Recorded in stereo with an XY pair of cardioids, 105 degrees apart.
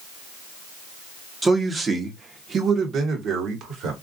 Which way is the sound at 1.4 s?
20° right.